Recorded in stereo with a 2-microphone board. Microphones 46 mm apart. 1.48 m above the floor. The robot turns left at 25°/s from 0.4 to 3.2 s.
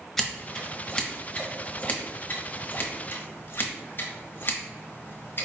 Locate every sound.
0.2 s scissors: 5° left (ahead or behind), 0.8 m; by 5.5 s 50° left (ahead or behind), 0.8 m